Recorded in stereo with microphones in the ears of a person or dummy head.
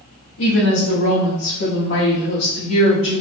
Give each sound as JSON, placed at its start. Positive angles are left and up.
{"t": 0.4, "sound": "a woman speaking", "side_deg": 80, "distance_m": 1.6}